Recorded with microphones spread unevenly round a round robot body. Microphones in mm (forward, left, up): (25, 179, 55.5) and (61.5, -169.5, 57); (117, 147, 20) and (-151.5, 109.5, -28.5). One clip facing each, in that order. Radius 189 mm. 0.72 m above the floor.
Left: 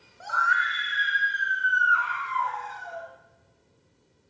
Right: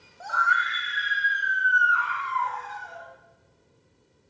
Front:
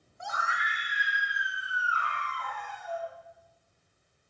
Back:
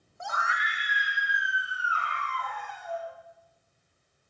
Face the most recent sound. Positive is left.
turn(degrees=-155)